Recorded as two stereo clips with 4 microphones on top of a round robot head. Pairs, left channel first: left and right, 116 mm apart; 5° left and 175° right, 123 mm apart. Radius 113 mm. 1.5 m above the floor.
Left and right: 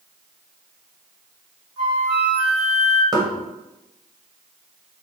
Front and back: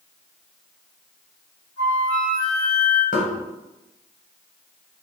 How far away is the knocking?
About 1.1 m.